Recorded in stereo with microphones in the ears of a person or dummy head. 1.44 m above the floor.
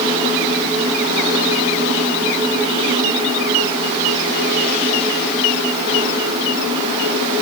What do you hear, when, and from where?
Only background noise.